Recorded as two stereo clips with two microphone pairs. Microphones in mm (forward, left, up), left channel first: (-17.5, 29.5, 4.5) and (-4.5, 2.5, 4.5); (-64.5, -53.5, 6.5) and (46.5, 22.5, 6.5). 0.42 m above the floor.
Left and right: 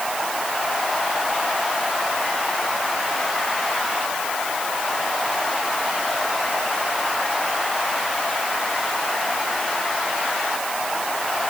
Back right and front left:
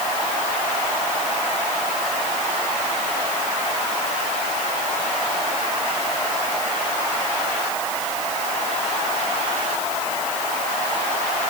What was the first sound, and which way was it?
Only background noise.